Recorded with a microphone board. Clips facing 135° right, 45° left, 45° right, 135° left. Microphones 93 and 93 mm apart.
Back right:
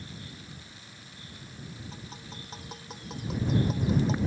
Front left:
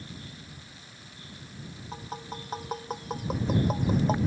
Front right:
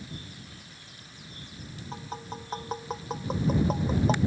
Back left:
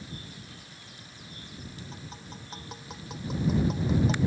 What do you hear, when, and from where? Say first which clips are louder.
1.9 s tapping: front left 6 dB, front right 6 dB; 5° left